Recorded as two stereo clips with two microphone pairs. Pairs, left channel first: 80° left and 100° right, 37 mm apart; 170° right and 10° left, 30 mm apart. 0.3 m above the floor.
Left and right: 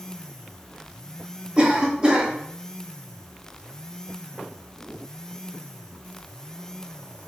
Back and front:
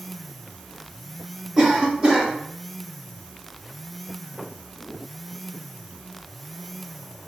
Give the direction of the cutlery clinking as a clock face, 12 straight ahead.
No cutlery clinking in this recording.